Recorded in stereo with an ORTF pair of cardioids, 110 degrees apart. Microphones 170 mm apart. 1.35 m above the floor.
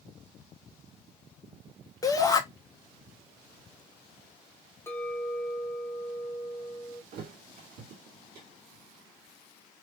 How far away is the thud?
About 2.0 m.